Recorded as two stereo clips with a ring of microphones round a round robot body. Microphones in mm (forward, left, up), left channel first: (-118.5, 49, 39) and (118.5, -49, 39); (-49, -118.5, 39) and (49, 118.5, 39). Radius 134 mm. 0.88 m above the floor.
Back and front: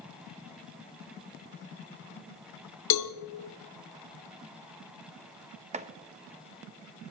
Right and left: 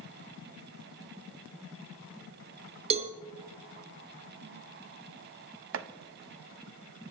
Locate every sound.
2.9 s a cowbell: 135° left, 0.9 m
5.7 s chopping: 40° left, 0.8 m